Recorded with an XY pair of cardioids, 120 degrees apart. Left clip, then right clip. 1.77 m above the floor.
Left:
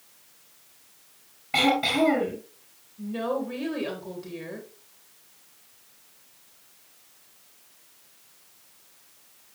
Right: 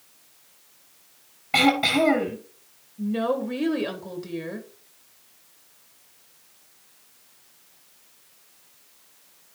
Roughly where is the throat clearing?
Ahead right.